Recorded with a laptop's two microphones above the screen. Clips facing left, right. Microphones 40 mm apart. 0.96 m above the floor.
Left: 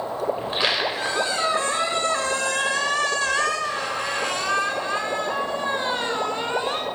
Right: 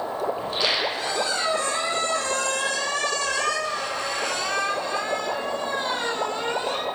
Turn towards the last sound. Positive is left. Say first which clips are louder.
# left 1 dB
turn(degrees=25)  # may be behind; listen again after turning